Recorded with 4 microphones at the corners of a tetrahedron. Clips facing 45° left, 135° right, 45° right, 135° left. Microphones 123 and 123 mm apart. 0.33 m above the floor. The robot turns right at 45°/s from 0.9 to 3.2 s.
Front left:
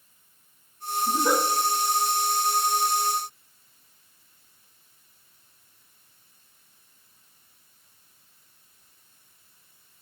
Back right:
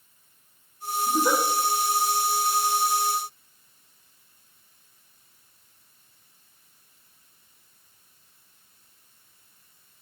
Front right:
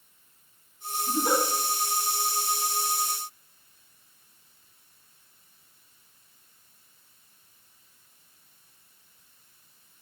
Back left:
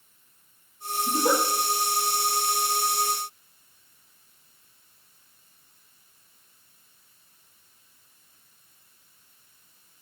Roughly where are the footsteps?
I don't hear footsteps.